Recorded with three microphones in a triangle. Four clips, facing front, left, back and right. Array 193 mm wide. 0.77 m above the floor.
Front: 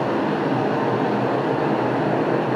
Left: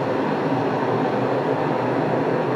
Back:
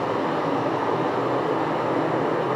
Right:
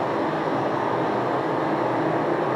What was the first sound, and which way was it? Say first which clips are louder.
Running water: left 2 dB, front 2 dB; 30° left.